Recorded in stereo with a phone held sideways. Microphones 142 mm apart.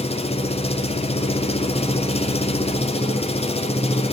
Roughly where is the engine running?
Left.